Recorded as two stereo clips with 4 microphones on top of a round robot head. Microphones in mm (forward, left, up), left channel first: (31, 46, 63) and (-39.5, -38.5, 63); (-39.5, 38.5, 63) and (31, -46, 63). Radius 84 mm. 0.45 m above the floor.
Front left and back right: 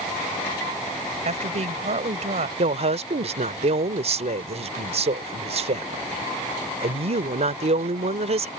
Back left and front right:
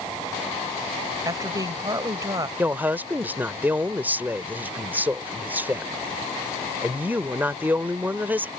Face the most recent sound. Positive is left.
turn(degrees=-120)